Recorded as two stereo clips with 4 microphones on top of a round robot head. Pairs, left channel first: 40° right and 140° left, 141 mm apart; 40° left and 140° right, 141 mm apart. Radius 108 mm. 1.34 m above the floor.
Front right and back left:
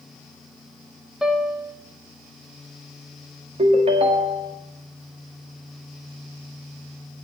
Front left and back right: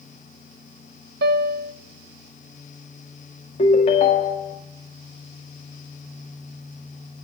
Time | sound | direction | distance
1.2 | a piano | 135° right | 0.8 m
3.6 | a ringtone | 90° left | 1.9 m